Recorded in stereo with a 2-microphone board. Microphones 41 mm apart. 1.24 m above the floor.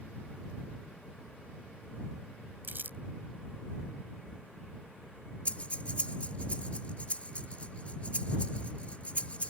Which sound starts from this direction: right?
Crumpling, at 2.6 s.